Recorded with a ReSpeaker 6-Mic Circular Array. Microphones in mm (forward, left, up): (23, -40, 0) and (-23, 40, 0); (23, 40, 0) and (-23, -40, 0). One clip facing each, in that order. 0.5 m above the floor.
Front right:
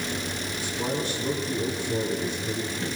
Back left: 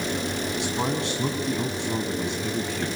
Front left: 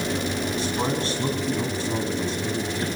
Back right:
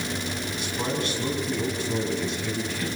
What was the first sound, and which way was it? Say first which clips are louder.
A man speaking: back left 1 dB, front left 1 dB; 120° left.